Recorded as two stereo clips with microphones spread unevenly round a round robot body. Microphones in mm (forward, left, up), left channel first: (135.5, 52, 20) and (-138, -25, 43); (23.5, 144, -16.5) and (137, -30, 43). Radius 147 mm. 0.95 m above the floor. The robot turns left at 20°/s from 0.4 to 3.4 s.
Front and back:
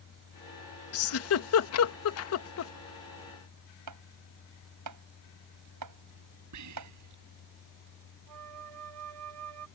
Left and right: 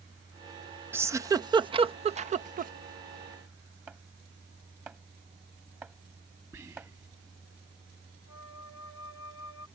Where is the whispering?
135° right.